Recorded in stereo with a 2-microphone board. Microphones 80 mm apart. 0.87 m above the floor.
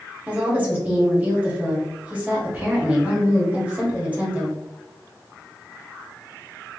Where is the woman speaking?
20° right (ahead or behind), 1.7 m.